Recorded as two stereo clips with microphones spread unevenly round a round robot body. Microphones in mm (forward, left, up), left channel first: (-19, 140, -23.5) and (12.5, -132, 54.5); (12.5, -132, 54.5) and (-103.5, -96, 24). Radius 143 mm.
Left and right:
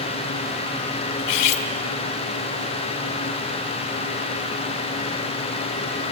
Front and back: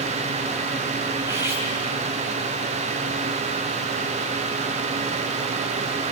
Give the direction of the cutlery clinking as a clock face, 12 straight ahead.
9 o'clock.